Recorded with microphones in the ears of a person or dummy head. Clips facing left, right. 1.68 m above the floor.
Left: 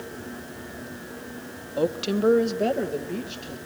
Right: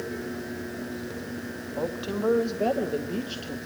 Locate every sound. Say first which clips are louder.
1.8 s a woman speaking: left 6 dB; 50° left (ahead or behind), 1.4 m; by 3.6 s 20° right (ahead or behind), 3 m